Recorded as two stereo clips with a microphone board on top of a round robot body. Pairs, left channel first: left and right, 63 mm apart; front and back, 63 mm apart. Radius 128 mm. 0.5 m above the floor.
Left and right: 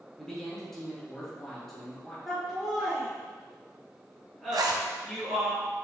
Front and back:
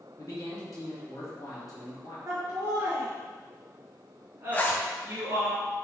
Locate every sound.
0.2 s a man speaking: 10° left, 1.8 m
2.3 s laughter: 175° left, 1.4 m
4.5 s a zipper: 65° right, 0.5 m